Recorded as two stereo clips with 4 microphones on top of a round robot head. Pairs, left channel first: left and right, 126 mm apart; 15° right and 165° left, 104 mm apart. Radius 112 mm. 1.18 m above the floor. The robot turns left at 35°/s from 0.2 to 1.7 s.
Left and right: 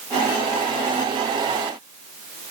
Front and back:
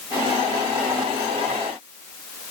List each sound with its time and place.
Only background noise.